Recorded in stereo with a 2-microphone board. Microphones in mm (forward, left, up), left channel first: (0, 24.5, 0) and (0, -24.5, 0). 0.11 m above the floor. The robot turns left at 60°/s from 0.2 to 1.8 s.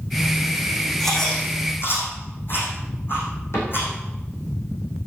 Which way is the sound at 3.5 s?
65° left (ahead or behind).